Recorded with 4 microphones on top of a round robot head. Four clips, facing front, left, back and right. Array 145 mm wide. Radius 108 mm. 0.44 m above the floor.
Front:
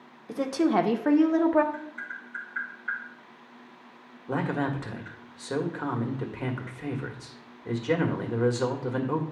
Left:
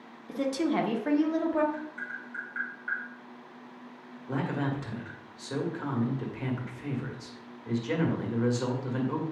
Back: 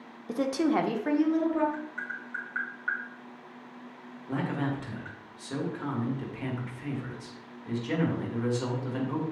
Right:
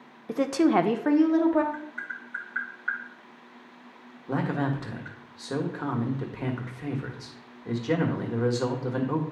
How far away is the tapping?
About 3 m.